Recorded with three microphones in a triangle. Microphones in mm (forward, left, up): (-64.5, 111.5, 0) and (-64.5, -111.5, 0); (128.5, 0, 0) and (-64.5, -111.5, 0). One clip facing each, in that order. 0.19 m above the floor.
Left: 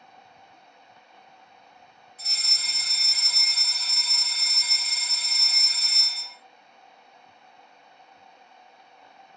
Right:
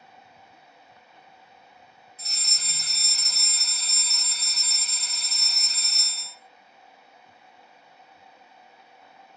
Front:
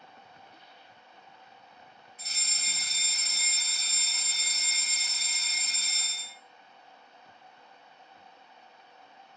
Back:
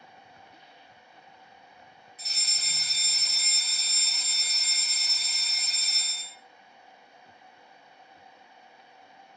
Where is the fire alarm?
45° right, 3 m.